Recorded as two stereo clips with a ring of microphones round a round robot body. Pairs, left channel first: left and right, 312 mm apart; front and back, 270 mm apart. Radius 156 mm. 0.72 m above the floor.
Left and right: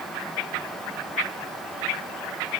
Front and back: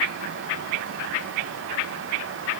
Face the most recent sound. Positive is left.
No sound to turn to.